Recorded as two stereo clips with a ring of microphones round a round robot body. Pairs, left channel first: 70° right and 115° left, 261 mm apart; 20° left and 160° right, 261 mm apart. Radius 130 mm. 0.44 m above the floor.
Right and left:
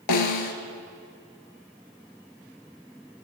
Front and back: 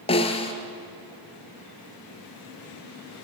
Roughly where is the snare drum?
Ahead right.